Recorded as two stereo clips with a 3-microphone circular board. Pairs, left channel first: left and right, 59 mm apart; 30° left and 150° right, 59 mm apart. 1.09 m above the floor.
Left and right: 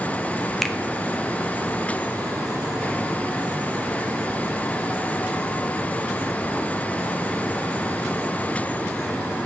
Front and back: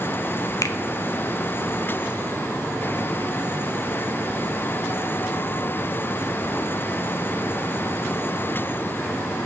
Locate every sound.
0.6 s a finger snap: straight ahead, 0.7 m